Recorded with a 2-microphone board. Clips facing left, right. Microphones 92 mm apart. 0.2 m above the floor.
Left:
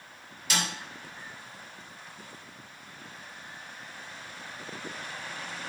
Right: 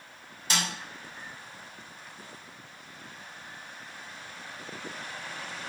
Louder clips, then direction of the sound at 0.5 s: Even; 35° right (ahead or behind).